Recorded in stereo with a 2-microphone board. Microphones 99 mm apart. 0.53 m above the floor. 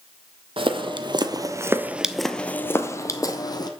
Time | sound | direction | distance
0.6 | footsteps | 60° right (ahead or behind) | 0.9 m